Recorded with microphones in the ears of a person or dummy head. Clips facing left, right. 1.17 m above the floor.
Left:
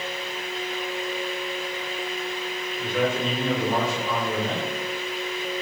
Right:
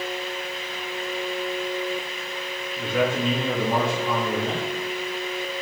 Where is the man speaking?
75° right (ahead or behind), 2 m.